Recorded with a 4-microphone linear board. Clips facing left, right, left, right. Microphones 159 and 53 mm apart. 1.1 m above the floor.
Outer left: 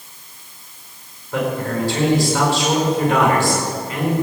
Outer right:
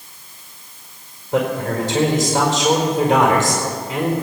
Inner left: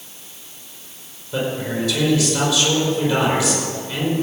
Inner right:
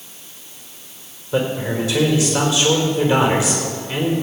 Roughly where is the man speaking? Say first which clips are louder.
Outer right 2 dB, inner right 3 dB; right.